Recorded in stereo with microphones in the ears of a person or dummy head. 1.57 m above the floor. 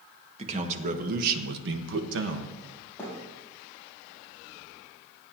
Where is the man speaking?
35° right (ahead or behind), 1.9 m; by 2.6 s 65° right (ahead or behind), 1.4 m.